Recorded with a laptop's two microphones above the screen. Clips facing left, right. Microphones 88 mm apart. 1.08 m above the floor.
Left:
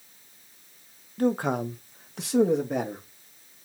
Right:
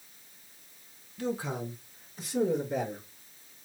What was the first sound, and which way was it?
A man speaking, 45° left (ahead or behind).